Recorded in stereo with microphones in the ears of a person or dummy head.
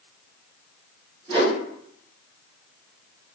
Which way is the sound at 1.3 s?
35° right (ahead or behind).